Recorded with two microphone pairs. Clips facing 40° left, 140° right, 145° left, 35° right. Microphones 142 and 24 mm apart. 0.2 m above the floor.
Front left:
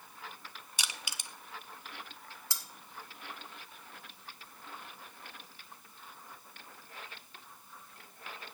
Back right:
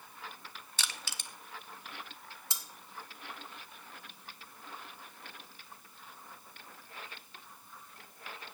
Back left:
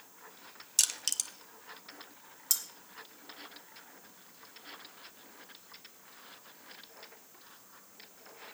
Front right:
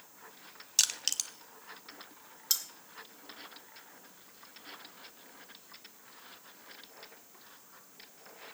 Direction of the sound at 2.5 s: 80° right.